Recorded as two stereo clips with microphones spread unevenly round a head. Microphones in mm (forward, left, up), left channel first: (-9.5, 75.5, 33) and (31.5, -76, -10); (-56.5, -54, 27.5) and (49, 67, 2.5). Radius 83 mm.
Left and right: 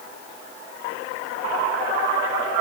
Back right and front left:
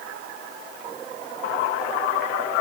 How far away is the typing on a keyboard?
I don't hear typing on a keyboard.